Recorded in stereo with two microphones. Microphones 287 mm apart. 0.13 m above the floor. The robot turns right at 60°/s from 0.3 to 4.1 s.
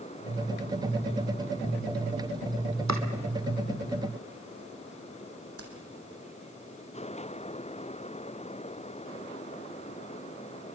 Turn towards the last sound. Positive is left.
turn(degrees=-55)  # may be behind; listen again after turning